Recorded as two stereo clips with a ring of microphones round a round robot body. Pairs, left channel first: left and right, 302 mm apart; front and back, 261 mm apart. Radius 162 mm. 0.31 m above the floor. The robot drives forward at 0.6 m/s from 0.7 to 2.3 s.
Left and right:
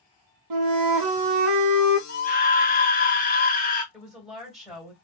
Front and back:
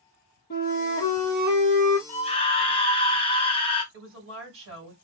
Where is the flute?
60° right, 0.7 m; by 2.0 s 125° right, 0.7 m.